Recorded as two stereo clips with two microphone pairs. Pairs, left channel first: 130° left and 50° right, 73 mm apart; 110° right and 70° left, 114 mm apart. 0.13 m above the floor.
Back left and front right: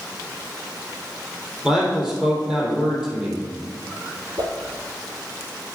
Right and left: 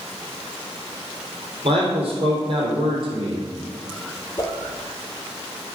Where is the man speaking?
30° left, 3.5 m.